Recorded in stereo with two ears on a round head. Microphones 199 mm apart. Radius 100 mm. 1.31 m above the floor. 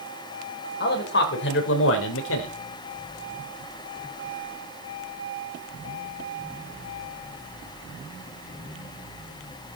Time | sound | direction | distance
0.8 | a man speaking | 50° left (ahead or behind) | 5 m